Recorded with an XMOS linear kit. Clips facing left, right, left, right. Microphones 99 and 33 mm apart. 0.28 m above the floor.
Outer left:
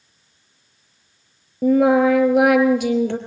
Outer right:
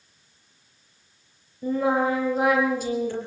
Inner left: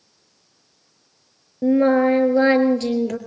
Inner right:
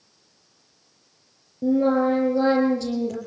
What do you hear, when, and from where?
1.6 s singing: 70° left (ahead or behind), 4 m